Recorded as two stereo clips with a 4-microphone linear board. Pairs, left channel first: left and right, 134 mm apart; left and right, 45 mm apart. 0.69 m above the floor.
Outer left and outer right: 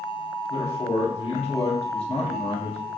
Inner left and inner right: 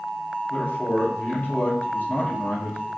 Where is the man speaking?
50° left (ahead or behind), 0.8 m.